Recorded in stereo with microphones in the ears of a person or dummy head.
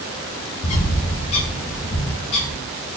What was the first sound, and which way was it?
A bird, 40° left (ahead or behind).